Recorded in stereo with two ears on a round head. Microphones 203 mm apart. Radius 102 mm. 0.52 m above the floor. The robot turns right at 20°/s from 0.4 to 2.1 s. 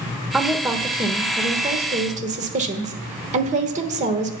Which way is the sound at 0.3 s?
175° right.